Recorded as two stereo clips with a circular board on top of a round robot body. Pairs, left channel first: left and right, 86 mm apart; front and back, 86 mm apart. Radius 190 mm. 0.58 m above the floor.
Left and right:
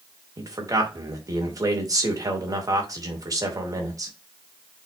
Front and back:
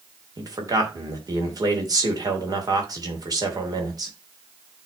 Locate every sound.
0.4 s a man speaking: 140° right, 2.5 m